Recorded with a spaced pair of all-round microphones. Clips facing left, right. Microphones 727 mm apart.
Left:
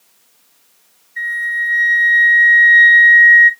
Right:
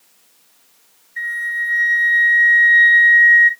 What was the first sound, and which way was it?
A flute, 30° right (ahead or behind).